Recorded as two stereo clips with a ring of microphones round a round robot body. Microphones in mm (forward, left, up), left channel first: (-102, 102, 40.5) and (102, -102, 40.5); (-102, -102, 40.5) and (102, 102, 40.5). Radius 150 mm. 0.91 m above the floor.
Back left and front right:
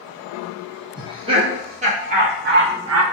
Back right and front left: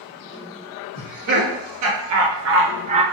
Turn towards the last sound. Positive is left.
turn(degrees=-25)